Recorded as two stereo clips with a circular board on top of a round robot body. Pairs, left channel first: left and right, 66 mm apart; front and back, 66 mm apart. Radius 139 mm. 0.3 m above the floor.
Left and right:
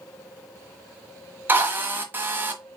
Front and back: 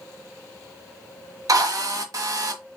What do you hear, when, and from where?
1.5 s a drill: 150° right, 1.2 m